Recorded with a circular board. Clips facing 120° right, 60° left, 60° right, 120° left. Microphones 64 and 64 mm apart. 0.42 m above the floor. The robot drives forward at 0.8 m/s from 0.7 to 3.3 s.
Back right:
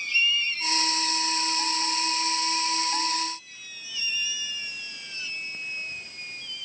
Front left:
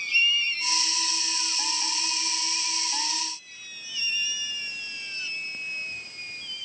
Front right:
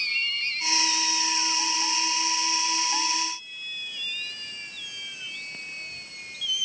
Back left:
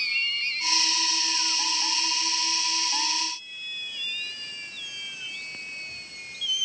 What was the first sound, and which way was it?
Only background noise.